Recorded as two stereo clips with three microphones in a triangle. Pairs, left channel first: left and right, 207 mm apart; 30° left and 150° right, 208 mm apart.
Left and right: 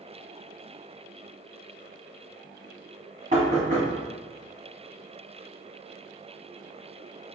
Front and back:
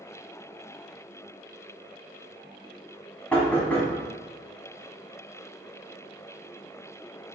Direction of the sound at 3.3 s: 50° right.